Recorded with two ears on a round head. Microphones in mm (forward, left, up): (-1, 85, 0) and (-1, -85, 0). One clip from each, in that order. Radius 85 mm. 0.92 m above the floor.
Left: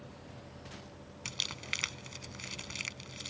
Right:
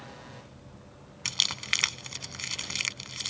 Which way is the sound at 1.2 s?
35° right (ahead or behind).